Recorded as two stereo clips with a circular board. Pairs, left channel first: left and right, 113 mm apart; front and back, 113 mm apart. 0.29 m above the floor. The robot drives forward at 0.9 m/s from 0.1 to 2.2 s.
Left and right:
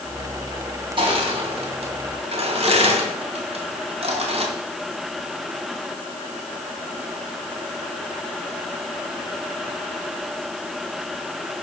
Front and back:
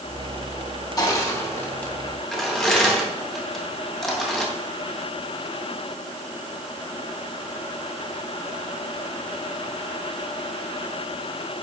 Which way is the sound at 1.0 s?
55° right.